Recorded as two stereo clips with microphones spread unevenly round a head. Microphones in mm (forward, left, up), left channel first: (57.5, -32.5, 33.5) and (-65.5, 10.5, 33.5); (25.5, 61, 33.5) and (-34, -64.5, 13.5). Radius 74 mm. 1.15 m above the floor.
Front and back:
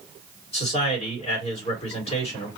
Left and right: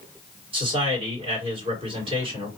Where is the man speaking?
60° right, 2 m.